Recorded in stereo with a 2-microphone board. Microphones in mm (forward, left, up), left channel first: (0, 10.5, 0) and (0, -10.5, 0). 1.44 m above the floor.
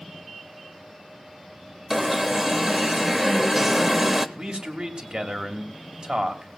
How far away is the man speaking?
About 1.8 m.